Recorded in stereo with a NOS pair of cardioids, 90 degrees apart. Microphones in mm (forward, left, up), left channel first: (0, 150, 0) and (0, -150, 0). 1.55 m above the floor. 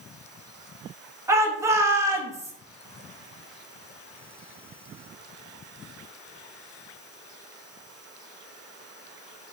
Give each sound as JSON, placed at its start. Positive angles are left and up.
{"t": 1.3, "sound": "a shout", "azimuth_deg": -10, "distance_m": 2.5}